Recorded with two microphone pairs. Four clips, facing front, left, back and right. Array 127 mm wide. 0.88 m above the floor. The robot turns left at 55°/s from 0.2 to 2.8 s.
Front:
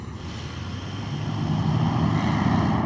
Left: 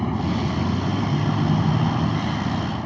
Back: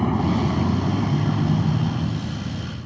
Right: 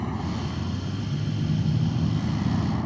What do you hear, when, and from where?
0.0 s a vehicle: 160° left; by 2.9 s 20° left